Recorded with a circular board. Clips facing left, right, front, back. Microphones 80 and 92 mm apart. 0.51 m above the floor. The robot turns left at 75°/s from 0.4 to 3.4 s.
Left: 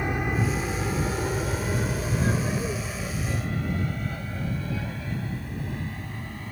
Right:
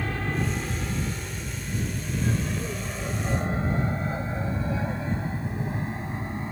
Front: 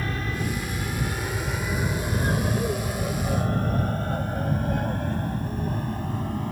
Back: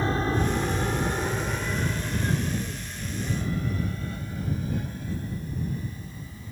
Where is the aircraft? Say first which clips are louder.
Left 2 dB, back 4 dB; 145° left; by 6.5 s 25° right.